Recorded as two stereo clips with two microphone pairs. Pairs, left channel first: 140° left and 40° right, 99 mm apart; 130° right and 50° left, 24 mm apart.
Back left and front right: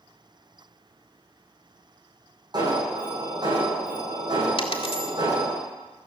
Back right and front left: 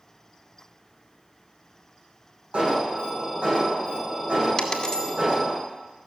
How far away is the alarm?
About 7.5 m.